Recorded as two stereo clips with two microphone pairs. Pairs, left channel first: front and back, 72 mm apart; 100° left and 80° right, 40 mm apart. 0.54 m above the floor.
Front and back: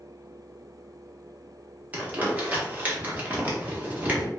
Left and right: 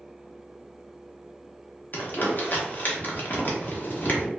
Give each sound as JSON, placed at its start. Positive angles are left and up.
{"t": 1.9, "sound": "crumpling", "azimuth_deg": 120, "distance_m": 0.8}